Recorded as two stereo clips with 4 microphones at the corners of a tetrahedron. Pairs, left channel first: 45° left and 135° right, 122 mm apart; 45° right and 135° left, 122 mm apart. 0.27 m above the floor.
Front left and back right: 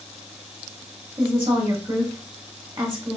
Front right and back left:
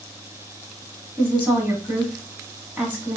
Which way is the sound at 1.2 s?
155° right.